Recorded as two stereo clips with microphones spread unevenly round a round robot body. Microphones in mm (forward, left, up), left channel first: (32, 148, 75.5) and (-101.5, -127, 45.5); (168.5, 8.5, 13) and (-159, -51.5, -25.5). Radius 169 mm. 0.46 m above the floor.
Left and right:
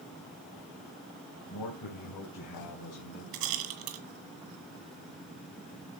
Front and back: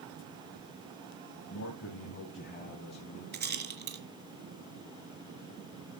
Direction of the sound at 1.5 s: 55° left.